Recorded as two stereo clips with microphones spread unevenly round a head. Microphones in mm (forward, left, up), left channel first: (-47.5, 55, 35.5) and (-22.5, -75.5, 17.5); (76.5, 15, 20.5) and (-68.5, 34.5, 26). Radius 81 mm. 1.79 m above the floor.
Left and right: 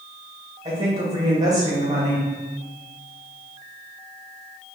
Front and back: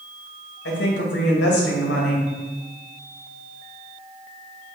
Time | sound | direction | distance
0.7 | a woman speaking | 10° right | 2.5 m